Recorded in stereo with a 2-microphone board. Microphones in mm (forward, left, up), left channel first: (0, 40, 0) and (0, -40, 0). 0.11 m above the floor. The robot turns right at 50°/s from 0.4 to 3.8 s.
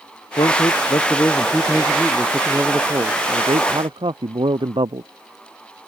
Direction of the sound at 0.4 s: 95° left.